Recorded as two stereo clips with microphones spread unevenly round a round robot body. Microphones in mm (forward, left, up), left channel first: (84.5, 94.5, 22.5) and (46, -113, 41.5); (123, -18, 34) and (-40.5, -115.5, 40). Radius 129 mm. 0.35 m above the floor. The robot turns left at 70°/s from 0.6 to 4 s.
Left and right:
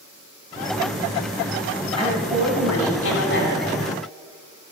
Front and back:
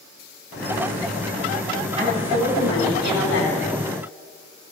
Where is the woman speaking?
150° left, 2.5 m; by 3.6 s 30° left, 2.5 m.